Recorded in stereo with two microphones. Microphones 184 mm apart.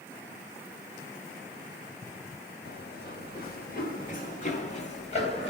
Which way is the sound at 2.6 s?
65° left (ahead or behind).